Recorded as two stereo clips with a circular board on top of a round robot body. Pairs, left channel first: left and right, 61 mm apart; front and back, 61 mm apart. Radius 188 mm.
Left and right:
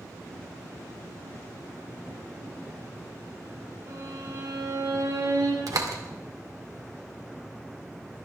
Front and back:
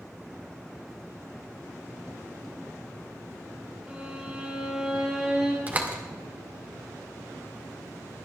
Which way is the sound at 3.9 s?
105° right.